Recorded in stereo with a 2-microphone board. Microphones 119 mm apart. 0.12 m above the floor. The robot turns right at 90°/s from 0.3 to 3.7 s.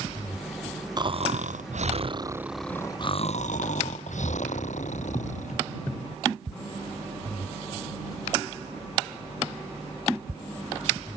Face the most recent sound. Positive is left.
turn(degrees=100)